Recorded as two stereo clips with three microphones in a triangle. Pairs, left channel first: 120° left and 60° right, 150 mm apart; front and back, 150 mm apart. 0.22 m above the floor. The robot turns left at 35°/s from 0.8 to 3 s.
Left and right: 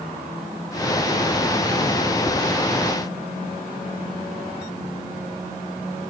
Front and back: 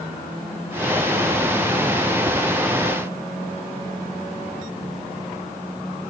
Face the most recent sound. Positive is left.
turn(degrees=-160)